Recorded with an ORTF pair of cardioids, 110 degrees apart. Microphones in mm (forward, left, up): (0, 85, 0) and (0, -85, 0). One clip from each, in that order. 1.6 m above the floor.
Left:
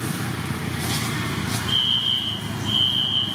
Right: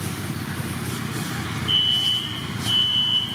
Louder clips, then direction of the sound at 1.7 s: Right 1 dB; 15° right.